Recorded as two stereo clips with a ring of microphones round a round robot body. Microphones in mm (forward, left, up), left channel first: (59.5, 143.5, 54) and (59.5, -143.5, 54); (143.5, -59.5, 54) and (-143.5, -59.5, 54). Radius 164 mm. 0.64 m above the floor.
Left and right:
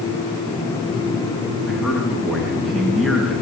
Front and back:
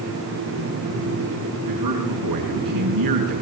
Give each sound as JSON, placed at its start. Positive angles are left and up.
{"t": 1.7, "sound": "a man speaking", "azimuth_deg": 180, "distance_m": 6.0}